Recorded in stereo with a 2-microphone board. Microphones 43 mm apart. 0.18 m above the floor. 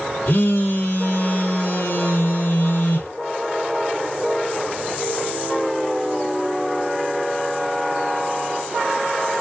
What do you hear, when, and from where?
0.3 s a phone buzzing: 60° left (ahead or behind), 1.7 m